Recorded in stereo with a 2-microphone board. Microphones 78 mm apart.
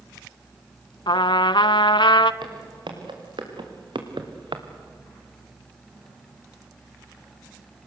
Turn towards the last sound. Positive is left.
turn(degrees=-85)